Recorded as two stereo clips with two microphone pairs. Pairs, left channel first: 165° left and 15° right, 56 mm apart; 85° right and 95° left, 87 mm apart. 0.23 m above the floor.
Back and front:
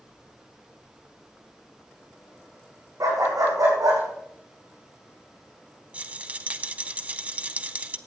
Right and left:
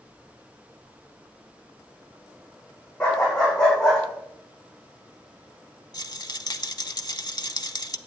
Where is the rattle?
70° right, 0.6 m.